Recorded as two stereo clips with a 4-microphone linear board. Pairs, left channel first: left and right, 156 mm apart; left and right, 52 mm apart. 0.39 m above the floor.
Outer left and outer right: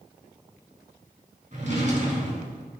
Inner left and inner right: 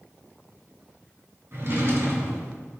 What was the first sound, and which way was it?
A drawer, 50° right (ahead or behind).